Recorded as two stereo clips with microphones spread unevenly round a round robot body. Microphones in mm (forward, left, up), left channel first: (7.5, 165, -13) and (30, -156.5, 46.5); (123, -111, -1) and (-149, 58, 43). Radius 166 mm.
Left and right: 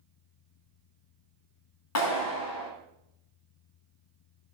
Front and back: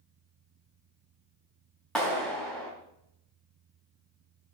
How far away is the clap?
About 2.5 m.